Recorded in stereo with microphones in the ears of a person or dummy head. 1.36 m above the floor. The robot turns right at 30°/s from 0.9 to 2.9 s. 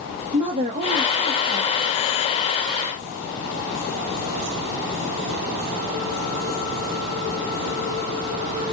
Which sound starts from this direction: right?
A woman speaking, at 0.3 s.